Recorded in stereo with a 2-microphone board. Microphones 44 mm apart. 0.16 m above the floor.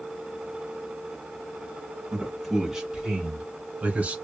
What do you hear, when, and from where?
2.1 s a man speaking: centre (ahead or behind), 1.6 m; by 4.2 s 35° right (ahead or behind), 1.9 m